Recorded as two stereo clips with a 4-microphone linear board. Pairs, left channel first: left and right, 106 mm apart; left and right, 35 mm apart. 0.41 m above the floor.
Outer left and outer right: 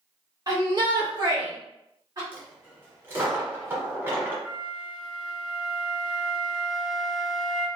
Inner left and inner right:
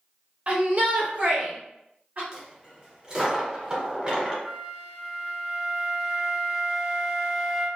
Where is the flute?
5° right (ahead or behind), 0.8 m.